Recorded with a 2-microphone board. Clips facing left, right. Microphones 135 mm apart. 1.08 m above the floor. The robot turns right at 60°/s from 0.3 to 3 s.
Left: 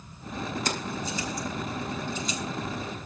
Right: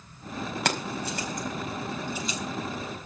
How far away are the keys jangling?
About 4.5 m.